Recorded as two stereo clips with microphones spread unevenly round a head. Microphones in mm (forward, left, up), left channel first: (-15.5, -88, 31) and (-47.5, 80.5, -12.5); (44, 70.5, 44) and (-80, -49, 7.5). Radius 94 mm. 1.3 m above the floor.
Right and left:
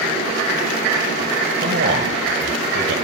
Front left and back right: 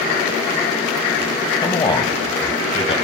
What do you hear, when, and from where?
1.6 s a man speaking: 115° left, 2 m; by 3.0 s 110° left, 3 m